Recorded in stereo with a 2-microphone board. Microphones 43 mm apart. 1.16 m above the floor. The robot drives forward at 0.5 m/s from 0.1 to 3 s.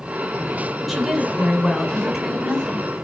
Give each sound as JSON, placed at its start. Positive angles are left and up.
{"t": 0.9, "sound": "a woman speaking", "side_deg": 0, "distance_m": 7.0}